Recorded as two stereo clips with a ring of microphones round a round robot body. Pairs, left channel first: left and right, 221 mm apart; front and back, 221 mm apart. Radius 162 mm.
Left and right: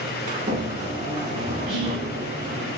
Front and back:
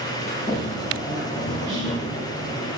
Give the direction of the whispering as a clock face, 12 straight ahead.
6 o'clock.